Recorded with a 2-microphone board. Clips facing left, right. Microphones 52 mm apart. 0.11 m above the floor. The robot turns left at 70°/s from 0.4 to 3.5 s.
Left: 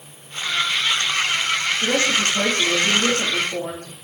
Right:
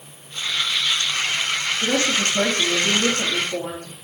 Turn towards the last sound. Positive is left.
turn(degrees=-130)